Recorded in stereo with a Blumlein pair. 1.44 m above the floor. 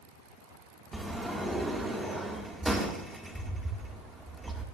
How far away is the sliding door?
About 2 m.